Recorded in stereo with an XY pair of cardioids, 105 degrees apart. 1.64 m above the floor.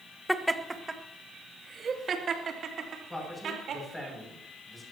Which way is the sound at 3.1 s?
10° left.